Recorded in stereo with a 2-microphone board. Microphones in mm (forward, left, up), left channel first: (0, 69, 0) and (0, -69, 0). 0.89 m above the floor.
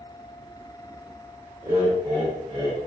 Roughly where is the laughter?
Centre.